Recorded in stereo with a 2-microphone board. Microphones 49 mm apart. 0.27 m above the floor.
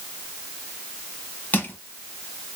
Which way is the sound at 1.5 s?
35° left (ahead or behind).